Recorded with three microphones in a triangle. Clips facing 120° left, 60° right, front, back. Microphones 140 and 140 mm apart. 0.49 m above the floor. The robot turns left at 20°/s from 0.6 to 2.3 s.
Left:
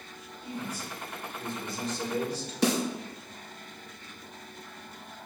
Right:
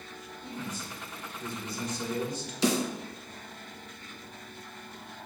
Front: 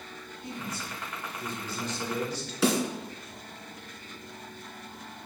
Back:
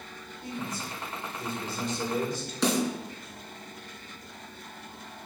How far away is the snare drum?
About 2.5 m.